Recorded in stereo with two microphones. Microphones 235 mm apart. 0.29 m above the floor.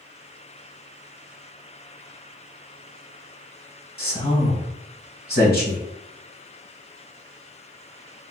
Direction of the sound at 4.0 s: 45° left (ahead or behind).